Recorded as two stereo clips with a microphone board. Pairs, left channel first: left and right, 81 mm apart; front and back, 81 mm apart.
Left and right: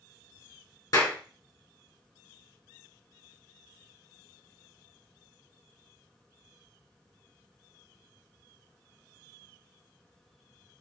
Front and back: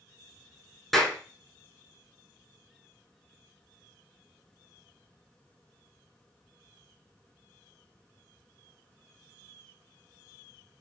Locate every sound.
0.9 s a clap: 85° left, 1.5 m